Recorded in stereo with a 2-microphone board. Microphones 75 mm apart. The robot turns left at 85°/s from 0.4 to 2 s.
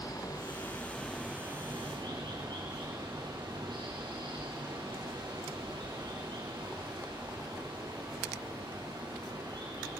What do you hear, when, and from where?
0.0 s running water: 60° left, 6.5 m; by 10.0 s 75° right, 6.5 m